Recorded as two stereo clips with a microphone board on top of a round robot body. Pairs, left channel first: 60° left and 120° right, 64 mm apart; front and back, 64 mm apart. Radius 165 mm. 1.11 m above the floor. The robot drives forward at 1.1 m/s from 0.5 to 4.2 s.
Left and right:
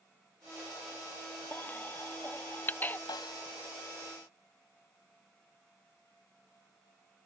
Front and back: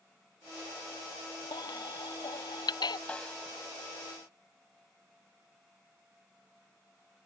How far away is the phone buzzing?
I don't hear a phone buzzing.